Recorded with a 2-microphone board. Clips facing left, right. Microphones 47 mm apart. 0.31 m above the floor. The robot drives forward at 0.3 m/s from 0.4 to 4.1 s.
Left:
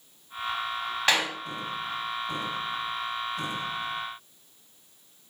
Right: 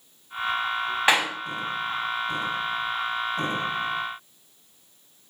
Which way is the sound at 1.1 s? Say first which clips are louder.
Right 3 dB; 20° right (ahead or behind).